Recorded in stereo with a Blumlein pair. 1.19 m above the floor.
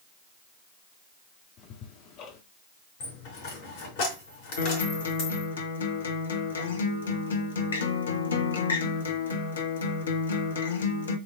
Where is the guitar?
65° left, 1.3 m.